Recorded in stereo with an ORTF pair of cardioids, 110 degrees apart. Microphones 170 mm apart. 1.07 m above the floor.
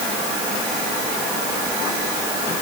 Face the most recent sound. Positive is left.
No sound to turn to.